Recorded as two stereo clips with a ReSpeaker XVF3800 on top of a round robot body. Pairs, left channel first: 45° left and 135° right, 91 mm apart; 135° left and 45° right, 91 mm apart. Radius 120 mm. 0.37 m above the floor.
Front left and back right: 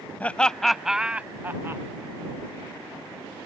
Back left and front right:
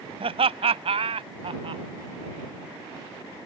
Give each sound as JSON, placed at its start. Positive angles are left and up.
{"t": 0.2, "sound": "laughter", "azimuth_deg": -30}